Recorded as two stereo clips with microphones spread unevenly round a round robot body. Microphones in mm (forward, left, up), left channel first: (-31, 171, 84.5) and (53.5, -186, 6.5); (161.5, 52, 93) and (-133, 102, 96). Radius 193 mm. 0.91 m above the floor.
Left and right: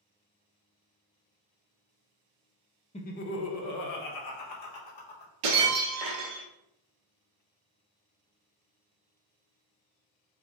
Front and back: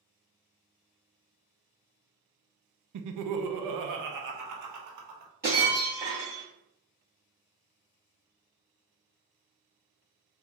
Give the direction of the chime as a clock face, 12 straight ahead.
I don't hear a chime.